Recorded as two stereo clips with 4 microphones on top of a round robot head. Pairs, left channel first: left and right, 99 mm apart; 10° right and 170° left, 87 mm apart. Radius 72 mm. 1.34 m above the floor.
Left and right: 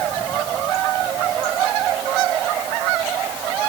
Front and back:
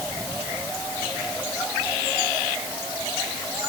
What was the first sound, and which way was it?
Only background noise.